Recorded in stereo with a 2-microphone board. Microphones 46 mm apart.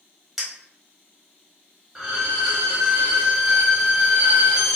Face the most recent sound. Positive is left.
turn(degrees=-10)  # may be behind; listen again after turning